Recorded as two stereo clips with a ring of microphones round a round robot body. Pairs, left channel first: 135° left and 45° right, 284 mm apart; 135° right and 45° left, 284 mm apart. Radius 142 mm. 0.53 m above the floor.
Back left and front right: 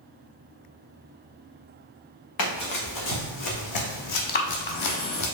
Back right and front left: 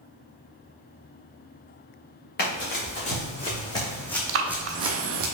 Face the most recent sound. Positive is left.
turn(degrees=80)